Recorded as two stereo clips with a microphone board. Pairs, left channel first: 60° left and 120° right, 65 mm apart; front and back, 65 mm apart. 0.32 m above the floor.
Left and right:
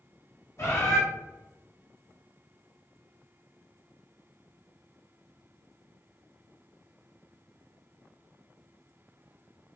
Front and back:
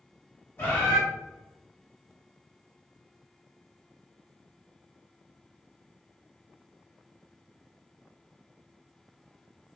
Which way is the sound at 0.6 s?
45° left.